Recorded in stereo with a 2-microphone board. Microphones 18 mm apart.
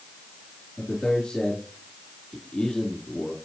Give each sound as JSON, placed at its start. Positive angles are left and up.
{"t": 0.8, "sound": "a man speaking", "side_deg": 60, "distance_m": 3.5}